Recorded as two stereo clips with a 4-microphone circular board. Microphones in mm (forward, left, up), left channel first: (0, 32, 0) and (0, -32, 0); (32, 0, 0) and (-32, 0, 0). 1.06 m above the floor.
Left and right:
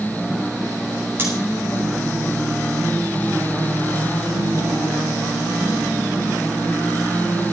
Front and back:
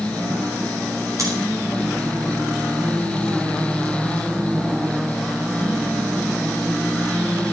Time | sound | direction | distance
1.2 | scissors | 150° right | 9 m